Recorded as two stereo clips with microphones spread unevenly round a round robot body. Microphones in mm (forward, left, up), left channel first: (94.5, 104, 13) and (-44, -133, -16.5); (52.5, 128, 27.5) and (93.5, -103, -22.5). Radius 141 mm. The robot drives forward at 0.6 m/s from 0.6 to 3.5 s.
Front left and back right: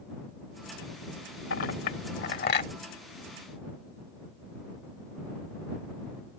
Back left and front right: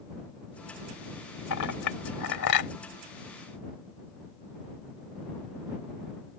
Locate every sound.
1.5 s a clink: 110° left; by 2.7 s 125° left